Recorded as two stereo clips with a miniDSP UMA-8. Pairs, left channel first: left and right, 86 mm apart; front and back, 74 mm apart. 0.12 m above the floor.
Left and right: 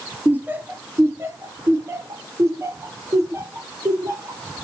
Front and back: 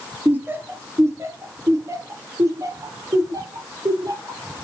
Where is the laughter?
140° right, 1.5 m; by 4.7 s 145° right, 4.5 m.